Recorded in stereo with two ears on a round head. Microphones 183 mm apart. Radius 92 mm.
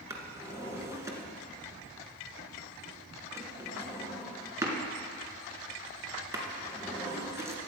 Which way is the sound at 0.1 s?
15° right (ahead or behind).